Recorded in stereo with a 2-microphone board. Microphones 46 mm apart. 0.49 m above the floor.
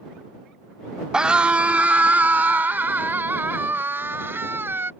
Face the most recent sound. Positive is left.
turn(degrees=-65)  # may be behind; listen again after turning